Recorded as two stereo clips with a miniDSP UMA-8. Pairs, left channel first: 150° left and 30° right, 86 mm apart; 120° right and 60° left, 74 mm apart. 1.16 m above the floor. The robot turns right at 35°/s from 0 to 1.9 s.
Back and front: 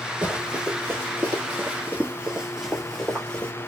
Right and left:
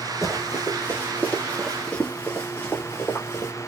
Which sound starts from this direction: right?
Running footsteps, at 0.2 s.